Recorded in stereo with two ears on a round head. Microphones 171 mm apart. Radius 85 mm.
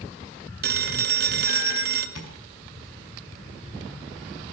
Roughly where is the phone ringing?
Right.